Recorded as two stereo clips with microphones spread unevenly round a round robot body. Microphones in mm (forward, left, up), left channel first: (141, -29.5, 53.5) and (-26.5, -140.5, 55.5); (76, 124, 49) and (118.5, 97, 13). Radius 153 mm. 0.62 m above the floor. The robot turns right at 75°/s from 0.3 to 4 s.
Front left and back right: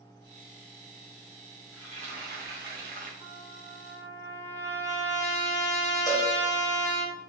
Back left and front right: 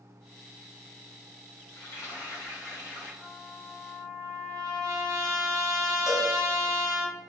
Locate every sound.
1.7 s frying: 145° left, 1.3 m; by 3.1 s 110° right, 1.3 m
3.2 s a trumpet: 80° right, 1.9 m; by 7.1 s 20° right, 1.9 m
6.1 s a cowbell: 30° right, 1.5 m